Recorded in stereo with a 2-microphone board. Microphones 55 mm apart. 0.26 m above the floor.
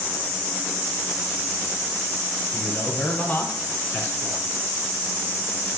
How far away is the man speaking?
About 1.2 m.